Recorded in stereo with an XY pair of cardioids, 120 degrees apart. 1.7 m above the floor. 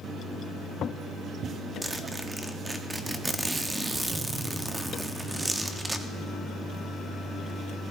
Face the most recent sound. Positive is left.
turn(degrees=-15)